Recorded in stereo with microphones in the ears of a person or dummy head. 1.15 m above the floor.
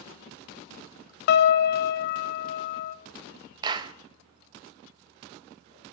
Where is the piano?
55° left (ahead or behind), 0.8 m.